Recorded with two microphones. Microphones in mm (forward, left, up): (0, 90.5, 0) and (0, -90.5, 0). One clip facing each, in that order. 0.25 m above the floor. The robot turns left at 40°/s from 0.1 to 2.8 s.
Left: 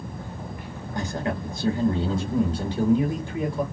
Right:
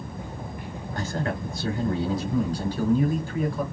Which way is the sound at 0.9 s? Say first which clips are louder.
Left 1 dB; 15° left (ahead or behind).